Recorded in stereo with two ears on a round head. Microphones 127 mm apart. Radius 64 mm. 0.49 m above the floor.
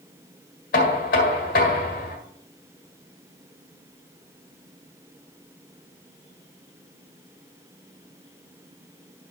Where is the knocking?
65° left (ahead or behind), 1.8 m.